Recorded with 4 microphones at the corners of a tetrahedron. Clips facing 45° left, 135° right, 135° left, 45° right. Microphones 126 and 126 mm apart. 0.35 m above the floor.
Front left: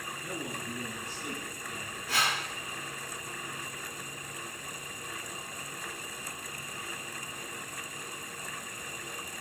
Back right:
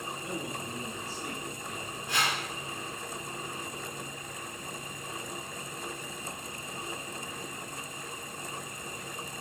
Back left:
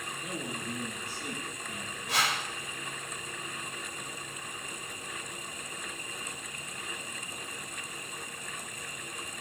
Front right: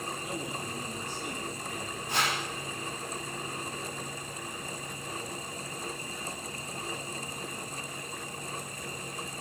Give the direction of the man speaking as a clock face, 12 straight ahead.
6 o'clock.